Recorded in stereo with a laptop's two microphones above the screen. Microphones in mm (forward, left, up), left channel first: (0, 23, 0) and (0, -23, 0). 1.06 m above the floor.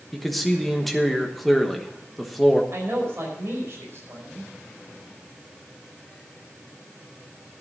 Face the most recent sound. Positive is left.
turn(degrees=-60)  # may be behind; listen again after turning